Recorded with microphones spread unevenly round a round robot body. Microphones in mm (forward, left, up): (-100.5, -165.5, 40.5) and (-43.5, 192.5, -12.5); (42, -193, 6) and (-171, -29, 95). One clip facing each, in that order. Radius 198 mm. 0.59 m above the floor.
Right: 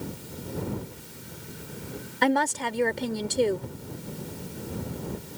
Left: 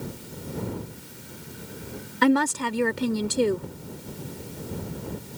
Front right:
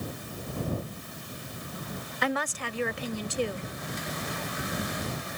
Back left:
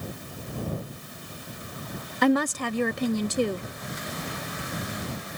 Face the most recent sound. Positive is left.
turn(degrees=115)